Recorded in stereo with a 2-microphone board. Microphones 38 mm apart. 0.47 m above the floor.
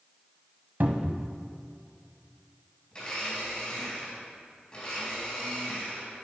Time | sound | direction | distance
0.8 | a cupboard door | 60° right (ahead or behind) | 0.9 m
2.9 | a blender | 25° left (ahead or behind) | 3.5 m